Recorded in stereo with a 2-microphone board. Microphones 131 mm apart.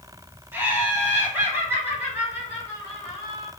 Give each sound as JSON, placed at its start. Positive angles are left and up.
{"t": 0.5, "sound": "laughter", "side_deg": -15, "distance_m": 1.4}